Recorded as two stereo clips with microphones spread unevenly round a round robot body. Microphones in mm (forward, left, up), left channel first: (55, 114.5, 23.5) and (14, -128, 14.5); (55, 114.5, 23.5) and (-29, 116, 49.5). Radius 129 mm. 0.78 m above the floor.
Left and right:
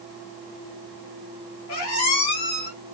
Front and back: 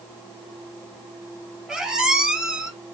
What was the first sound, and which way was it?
A squeak, 105° left.